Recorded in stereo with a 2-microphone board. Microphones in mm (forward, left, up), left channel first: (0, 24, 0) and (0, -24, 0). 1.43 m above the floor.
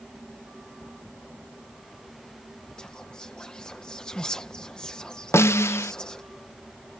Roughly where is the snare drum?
Left.